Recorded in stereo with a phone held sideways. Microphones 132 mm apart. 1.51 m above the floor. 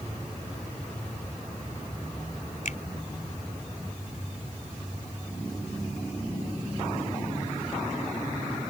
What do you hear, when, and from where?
2.6 s a finger snap: 65° left (ahead or behind)